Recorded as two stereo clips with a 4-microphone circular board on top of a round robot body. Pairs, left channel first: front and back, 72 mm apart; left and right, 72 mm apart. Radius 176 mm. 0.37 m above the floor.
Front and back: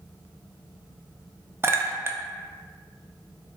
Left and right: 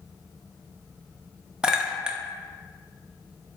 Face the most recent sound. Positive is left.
turn(degrees=-160)